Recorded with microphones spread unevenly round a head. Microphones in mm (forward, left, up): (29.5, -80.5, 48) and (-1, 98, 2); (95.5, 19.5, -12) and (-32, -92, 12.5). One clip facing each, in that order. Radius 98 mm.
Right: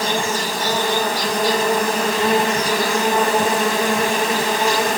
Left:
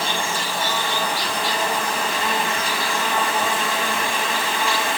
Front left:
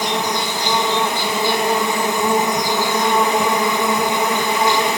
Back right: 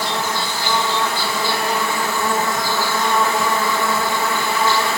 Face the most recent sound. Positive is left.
turn(degrees=-30)